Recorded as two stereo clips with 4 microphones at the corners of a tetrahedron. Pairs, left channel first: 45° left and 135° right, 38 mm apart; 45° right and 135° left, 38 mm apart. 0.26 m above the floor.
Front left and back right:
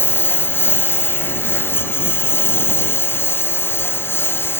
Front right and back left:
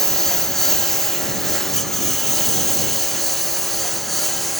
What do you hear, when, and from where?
0.0 s a lawn mower: 35° left; by 4.6 s 40° left